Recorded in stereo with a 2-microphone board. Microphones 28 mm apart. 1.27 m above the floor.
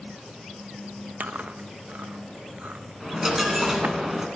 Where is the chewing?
70° right (ahead or behind), 0.8 m.